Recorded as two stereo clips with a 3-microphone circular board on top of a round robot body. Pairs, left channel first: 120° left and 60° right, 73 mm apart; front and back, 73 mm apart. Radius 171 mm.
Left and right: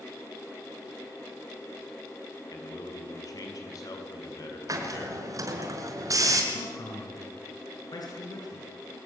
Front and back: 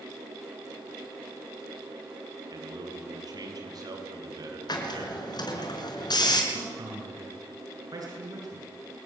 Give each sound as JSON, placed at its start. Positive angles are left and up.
{"t": 2.5, "sound": "a man speaking", "azimuth_deg": 155, "distance_m": 6.5}
{"t": 4.7, "sound": "a hiss", "azimuth_deg": -20, "distance_m": 4.5}
{"t": 6.5, "sound": "a man speaking", "azimuth_deg": 150, "distance_m": 7.5}